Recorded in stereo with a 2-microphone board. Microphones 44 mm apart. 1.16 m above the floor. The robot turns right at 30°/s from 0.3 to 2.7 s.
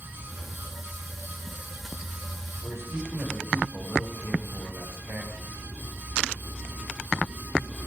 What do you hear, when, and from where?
2.6 s a man speaking: 80° right, 4.5 m; by 5.5 s 85° right, 4.5 m